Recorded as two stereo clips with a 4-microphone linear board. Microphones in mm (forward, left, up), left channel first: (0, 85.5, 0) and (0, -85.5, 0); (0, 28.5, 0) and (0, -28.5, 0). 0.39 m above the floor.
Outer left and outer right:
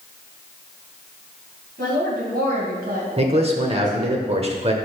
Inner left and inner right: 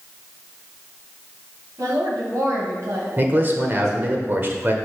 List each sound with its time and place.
1.8 s a woman speaking: 65° right (ahead or behind), 2.5 m; by 4.2 s 45° right (ahead or behind), 2.5 m
3.2 s a man speaking: 35° right (ahead or behind), 0.9 m